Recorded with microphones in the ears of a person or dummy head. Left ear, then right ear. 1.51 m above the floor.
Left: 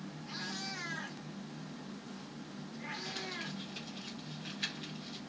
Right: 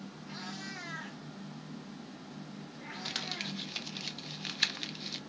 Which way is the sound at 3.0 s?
45° right (ahead or behind).